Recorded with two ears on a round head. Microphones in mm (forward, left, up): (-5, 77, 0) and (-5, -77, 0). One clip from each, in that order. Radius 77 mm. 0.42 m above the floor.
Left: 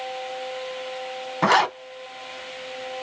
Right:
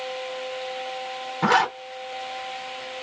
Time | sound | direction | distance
1.4 | a zipper | 40° left (ahead or behind) | 1.2 m